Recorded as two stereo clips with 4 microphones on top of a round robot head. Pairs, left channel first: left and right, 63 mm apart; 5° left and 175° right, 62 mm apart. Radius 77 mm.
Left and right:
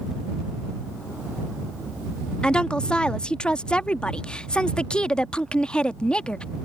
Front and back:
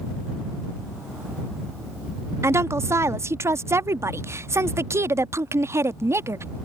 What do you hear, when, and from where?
2.4 s a woman speaking: 160° left